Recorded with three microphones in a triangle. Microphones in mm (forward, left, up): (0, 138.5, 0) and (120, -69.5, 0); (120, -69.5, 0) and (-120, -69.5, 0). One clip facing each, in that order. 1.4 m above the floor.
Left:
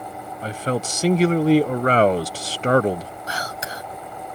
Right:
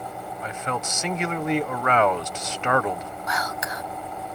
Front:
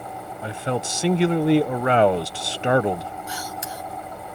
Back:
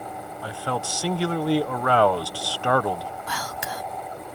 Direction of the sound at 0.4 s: 65° left.